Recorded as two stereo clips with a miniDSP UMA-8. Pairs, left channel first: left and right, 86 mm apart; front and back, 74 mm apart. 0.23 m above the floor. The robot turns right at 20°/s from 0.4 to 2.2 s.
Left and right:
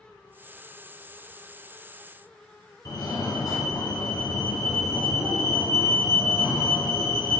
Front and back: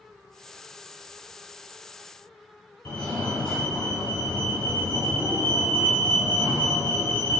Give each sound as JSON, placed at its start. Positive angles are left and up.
{"t": 2.9, "sound": "a fire alarm", "azimuth_deg": 75, "distance_m": 3.5}